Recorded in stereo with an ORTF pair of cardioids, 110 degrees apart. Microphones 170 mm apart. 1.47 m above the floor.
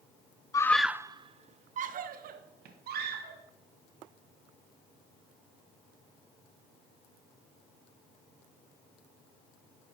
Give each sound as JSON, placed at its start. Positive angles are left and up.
{"t": 0.5, "sound": "a scream", "azimuth_deg": 20, "distance_m": 0.6}